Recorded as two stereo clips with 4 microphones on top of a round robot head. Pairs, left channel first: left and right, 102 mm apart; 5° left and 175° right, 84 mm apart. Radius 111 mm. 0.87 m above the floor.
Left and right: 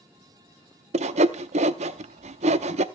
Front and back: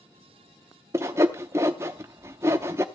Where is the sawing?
110° right, 0.7 m.